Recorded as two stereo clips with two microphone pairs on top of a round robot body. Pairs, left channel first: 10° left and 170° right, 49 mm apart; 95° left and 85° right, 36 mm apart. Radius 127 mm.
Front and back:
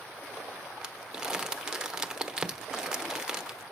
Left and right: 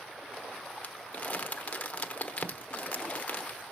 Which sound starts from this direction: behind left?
Crumpling, at 0.8 s.